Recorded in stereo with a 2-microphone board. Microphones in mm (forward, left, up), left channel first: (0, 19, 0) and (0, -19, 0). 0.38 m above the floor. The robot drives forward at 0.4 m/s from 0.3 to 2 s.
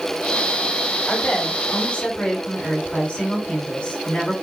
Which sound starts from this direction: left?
A woman speaking, at 1.1 s.